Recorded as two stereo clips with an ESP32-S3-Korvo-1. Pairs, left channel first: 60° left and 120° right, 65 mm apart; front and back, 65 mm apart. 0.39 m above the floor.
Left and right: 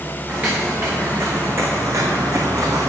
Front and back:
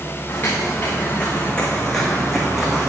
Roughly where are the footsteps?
Ahead right.